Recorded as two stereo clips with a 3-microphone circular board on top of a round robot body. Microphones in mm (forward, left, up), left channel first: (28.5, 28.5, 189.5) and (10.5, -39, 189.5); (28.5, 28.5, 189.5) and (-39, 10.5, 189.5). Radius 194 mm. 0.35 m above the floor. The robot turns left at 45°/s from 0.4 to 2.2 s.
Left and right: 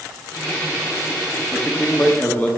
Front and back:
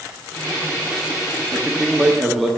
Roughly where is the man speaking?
Behind left.